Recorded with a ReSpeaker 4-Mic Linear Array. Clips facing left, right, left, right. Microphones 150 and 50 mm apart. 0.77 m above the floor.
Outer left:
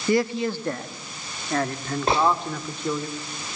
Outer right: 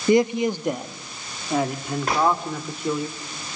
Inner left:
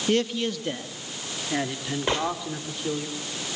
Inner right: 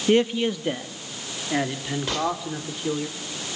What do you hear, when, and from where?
0.1 s a man speaking: 20° right (ahead or behind), 1.0 m; by 3.1 s 5° right (ahead or behind), 2.5 m
2.1 s a gunshot: 30° left (ahead or behind), 3 m